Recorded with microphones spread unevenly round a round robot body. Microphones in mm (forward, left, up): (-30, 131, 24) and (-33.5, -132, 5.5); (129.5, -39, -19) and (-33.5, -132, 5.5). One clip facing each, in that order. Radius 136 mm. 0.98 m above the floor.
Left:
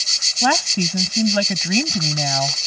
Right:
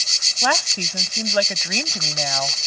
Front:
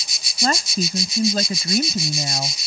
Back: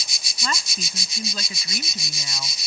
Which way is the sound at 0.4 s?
95° left.